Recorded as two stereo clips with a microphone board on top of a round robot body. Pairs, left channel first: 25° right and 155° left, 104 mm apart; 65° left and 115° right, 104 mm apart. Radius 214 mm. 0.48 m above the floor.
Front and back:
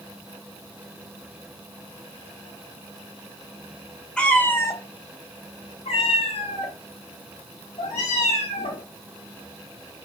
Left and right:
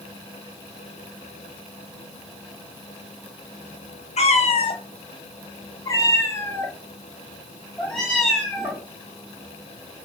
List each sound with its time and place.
4.2 s a cat meowing: 60° left, 1.1 m; by 8.8 s 20° right, 2.5 m